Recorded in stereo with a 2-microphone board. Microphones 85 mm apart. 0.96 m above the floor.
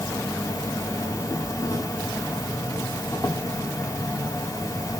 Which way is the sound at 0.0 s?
40° left (ahead or behind).